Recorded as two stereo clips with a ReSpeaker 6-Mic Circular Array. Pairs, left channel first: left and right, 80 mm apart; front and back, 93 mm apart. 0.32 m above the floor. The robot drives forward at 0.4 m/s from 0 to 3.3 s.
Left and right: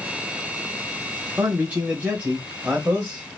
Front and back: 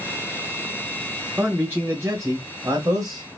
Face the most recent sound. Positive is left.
turn(degrees=-160)